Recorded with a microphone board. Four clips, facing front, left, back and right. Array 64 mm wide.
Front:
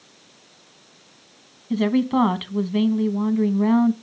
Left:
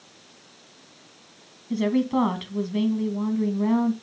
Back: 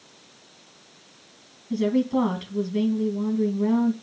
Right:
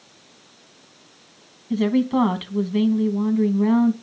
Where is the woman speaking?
15° right, 1.7 m.